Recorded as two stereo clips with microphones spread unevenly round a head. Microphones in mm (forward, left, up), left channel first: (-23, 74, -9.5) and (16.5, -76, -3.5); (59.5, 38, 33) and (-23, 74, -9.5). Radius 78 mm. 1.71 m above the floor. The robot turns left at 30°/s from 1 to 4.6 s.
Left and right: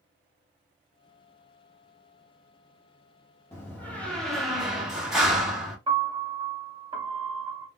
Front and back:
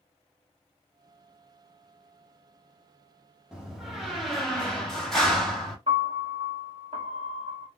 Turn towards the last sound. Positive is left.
turn(degrees=-130)